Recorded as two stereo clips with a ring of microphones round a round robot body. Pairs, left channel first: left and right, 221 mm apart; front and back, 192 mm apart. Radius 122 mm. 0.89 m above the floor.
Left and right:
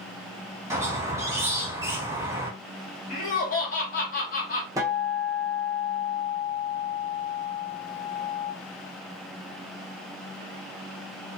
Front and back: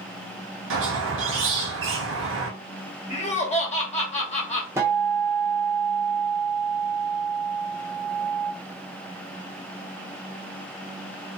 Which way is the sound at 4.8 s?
135° right.